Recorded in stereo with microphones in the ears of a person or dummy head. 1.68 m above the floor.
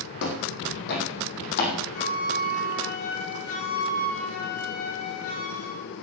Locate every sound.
0.2 s footsteps: 70° left (ahead or behind), 4.5 m; by 1.8 s 60° left (ahead or behind), 5 m
1.9 s a flute: 50° left (ahead or behind), 9.5 m